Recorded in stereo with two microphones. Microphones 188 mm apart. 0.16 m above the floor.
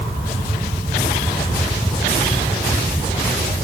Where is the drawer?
I don't hear a drawer.